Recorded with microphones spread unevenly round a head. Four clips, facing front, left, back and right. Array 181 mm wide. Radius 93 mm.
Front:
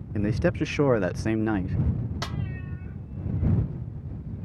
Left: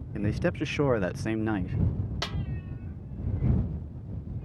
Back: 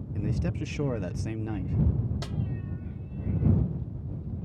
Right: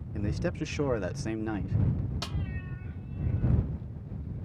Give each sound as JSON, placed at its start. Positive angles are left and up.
{"t": 0.1, "sound": "a man speaking", "azimuth_deg": 10}
{"t": 2.2, "sound": "a snare drum", "azimuth_deg": 50}